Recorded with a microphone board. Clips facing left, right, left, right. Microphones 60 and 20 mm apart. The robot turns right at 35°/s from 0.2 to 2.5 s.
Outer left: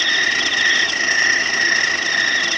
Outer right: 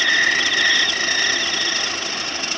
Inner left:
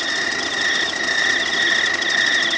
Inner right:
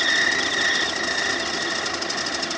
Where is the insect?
5° right; by 2.6 s 75° left.